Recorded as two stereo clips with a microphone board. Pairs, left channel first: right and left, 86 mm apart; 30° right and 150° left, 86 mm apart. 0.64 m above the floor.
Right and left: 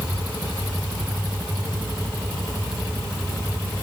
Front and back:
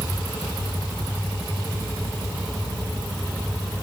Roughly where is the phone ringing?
I don't hear a phone ringing.